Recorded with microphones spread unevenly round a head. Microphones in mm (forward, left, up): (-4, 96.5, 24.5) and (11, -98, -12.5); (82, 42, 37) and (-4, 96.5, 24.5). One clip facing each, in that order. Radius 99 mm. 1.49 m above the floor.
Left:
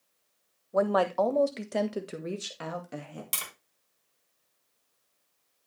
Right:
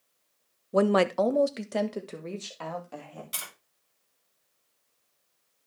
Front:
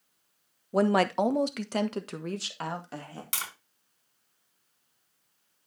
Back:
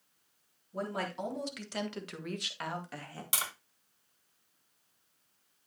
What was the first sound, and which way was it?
A woman speaking, 40° right.